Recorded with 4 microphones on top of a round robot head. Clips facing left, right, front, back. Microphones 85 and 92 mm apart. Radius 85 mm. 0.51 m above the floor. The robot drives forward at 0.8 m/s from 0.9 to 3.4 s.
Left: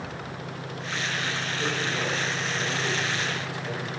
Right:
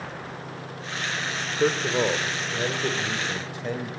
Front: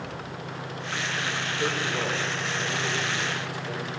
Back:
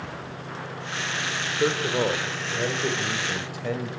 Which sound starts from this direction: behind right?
A man speaking, at 1.6 s.